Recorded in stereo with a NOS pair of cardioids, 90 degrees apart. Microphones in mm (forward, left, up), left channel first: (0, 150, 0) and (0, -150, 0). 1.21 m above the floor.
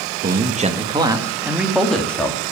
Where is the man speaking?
30° right, 1.8 m; by 2.4 s 5° left, 2.5 m.